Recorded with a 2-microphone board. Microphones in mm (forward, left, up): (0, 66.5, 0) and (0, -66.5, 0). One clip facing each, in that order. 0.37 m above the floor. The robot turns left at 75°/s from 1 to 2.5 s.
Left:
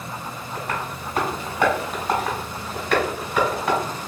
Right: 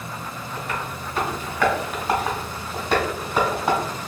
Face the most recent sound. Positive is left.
turn(degrees=-30)  # may be behind; listen again after turning